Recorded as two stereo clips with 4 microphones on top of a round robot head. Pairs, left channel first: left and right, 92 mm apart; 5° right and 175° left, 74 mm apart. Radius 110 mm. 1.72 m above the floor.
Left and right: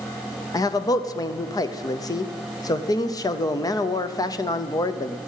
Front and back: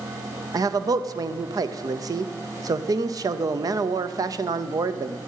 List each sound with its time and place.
0.5 s a man speaking: 140° left, 0.8 m